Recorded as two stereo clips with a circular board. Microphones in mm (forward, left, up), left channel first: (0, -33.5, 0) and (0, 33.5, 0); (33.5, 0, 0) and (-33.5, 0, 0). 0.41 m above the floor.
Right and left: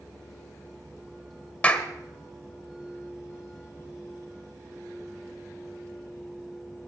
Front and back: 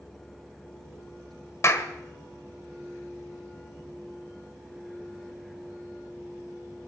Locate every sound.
1.6 s a clap: 25° right, 1.5 m